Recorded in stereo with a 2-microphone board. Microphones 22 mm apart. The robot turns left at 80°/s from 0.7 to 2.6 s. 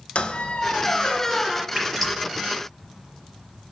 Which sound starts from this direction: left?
A squeak, at 0.1 s.